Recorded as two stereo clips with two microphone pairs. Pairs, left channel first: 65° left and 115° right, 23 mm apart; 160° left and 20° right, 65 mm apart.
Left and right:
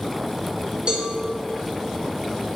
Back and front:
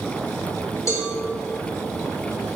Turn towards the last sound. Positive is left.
turn(degrees=-165)